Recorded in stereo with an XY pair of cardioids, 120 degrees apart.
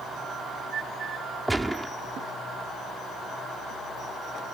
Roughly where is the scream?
No scream in this recording.